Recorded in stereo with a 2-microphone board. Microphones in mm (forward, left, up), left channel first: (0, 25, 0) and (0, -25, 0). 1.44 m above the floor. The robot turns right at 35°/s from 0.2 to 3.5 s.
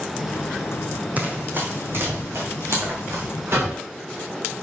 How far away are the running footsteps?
About 2.5 m.